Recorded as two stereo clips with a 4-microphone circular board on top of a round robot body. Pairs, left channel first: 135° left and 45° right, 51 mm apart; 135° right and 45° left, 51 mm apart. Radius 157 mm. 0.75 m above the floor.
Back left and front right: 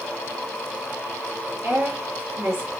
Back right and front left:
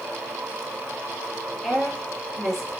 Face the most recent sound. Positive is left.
turn(degrees=-45)